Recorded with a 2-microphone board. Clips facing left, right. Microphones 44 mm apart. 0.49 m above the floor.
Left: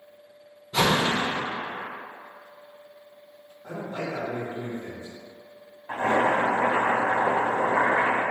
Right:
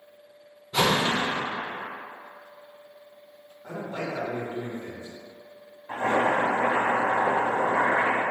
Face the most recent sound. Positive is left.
turn(degrees=30)  # may be behind; listen again after turning